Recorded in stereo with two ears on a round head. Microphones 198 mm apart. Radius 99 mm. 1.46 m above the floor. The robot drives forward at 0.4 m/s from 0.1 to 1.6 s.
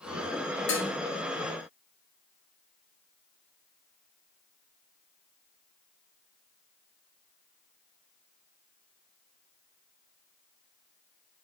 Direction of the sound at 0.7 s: 60° left (ahead or behind).